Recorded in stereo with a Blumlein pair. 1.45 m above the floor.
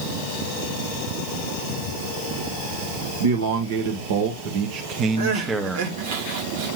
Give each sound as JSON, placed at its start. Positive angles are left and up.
{"t": 3.2, "sound": "a man speaking", "azimuth_deg": -70, "distance_m": 1.6}
{"t": 5.2, "sound": "crying", "azimuth_deg": -55, "distance_m": 1.8}